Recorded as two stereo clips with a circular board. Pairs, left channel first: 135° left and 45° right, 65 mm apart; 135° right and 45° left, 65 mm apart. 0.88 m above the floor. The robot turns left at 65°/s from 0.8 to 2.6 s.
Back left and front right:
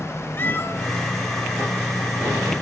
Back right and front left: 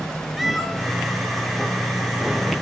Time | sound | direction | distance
0.4 | a cat meowing | 130° left | 0.9 m